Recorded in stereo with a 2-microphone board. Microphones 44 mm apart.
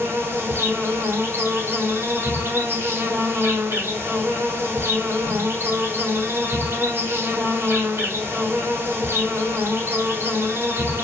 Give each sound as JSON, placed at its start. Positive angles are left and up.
{"t": 0.0, "sound": "an insect", "side_deg": -65, "distance_m": 0.9}